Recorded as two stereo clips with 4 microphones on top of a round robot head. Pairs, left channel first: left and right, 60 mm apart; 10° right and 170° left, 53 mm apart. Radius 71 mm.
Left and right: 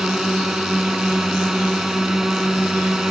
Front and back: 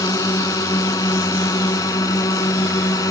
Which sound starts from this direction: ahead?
A drone, at 0.0 s.